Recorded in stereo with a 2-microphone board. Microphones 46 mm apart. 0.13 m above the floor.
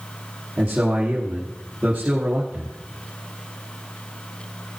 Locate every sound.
0.6 s a man speaking: 25° right (ahead or behind), 3 m